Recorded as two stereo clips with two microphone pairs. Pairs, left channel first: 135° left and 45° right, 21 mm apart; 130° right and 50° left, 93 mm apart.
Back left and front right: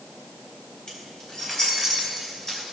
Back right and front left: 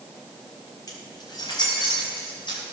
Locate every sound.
0.9 s keys jangling: straight behind, 3.5 m; by 2.6 s 160° right, 5 m